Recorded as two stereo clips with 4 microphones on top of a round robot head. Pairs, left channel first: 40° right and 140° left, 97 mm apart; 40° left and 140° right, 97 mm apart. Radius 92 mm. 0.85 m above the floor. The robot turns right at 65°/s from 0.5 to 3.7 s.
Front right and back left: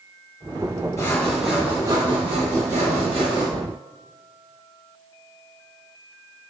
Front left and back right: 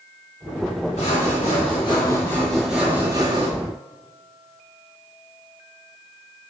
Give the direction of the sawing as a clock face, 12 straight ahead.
11 o'clock.